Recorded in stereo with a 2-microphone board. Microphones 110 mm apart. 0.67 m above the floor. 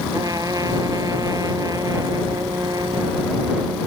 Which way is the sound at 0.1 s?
35° right (ahead or behind).